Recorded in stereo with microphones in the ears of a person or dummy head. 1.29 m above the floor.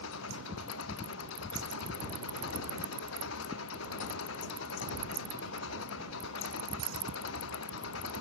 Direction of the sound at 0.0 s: 75° left (ahead or behind).